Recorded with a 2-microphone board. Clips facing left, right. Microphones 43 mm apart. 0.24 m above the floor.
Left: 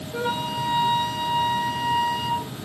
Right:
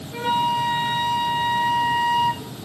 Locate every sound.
0.1 s a flute: 45° right (ahead or behind), 1.6 m